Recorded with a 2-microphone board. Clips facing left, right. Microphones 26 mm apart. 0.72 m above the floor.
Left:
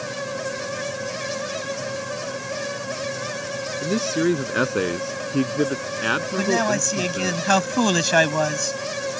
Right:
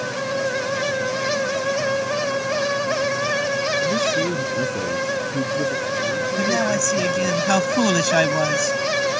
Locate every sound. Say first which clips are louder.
3.8 s a man speaking: right 2 dB; 85° left
6.4 s a man speaking: right 2 dB; 10° left (ahead or behind)